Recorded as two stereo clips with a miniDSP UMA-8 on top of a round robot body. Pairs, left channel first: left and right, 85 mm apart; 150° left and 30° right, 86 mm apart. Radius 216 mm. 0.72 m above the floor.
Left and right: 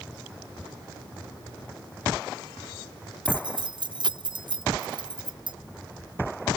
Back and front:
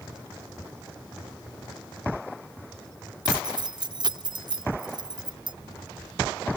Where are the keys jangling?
60° right.